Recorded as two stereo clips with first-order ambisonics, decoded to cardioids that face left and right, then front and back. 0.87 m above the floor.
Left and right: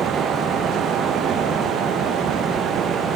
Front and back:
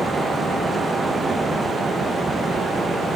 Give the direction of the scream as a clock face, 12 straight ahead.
No scream in this recording.